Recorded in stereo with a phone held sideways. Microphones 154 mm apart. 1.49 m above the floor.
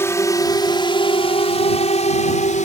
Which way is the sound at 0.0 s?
15° left (ahead or behind).